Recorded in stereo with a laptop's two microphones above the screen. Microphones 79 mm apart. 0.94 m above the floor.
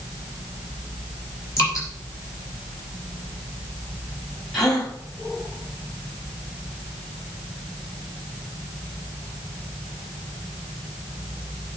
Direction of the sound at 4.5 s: 5° left (ahead or behind).